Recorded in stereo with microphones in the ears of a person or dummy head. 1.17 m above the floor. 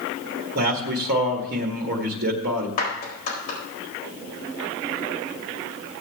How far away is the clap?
About 4 m.